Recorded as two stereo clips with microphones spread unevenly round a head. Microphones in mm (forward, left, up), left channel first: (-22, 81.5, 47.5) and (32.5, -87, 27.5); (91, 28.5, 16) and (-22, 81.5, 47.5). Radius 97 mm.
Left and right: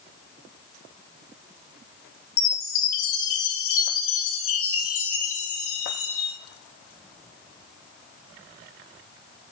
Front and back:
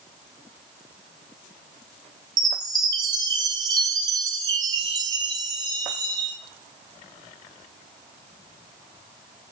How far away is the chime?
About 0.7 m.